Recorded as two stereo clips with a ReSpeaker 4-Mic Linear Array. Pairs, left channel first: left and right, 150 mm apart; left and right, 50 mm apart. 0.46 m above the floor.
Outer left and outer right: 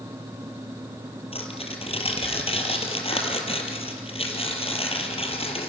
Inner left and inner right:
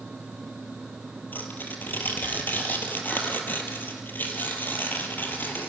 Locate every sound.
1.3 s tearing paper: 40° left (ahead or behind), 3 m